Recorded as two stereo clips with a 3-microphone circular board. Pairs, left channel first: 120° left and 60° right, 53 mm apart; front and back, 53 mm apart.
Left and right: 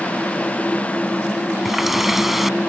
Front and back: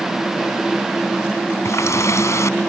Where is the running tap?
25° left.